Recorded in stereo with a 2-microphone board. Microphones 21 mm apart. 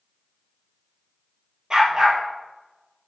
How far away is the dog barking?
About 2.5 m.